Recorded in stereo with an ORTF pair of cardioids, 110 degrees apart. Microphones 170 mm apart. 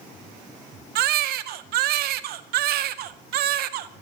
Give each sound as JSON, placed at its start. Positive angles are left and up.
{"t": 0.9, "sound": "a baby crying", "azimuth_deg": -70, "distance_m": 0.6}